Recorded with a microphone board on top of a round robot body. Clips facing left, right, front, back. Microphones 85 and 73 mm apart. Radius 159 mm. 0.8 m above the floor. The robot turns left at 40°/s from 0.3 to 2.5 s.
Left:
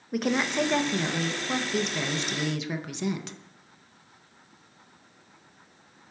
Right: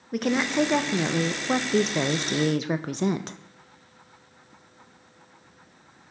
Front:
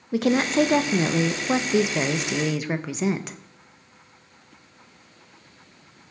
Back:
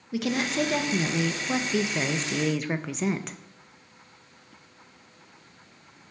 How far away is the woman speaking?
About 0.6 m.